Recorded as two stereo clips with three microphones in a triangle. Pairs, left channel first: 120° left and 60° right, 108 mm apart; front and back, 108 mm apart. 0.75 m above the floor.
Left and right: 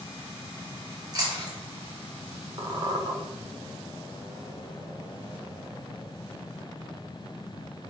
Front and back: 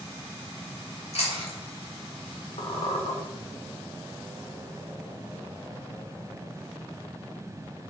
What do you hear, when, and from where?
1.1 s chewing: 10° right, 2.5 m
2.6 s a squeak: 15° right, 1.5 m